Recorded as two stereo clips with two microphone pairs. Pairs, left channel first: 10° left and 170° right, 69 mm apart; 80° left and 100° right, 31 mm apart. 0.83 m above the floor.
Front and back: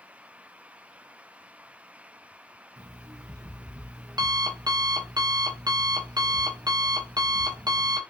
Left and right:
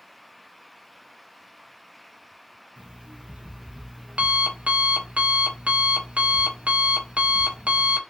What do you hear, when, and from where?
2.8 s an alarm clock: 150° right, 0.7 m